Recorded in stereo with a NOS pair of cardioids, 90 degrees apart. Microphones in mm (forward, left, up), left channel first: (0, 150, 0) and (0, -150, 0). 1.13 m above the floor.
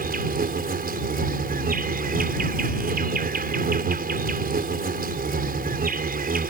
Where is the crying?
I don't hear crying.